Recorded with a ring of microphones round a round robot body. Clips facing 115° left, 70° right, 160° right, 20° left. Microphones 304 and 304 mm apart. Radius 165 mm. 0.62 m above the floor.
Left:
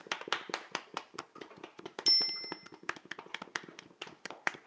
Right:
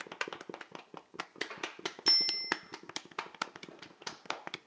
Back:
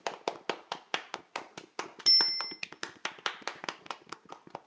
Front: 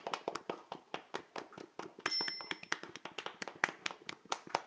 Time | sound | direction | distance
2.1 | a bicycle bell | 175° left | 2.5 m